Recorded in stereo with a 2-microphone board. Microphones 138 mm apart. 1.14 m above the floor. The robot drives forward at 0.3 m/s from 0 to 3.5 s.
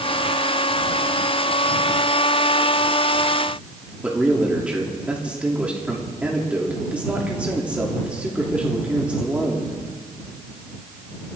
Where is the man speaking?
10° right (ahead or behind), 3 m.